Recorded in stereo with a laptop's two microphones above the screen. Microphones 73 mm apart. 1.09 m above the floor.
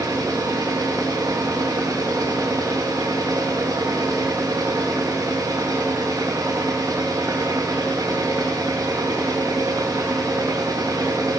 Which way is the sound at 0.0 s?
60° right (ahead or behind).